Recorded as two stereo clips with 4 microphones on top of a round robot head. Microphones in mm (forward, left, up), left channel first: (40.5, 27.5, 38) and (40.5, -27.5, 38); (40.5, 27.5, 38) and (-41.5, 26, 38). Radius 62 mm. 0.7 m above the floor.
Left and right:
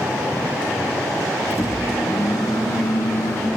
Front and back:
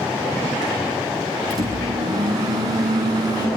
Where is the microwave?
135° left, 8 m.